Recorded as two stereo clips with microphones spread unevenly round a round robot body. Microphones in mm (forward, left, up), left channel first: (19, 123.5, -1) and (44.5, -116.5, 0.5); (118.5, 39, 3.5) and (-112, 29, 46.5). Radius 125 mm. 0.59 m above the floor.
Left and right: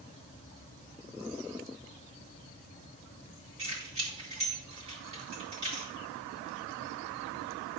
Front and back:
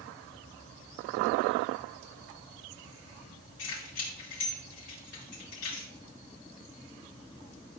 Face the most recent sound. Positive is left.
turn(degrees=-20)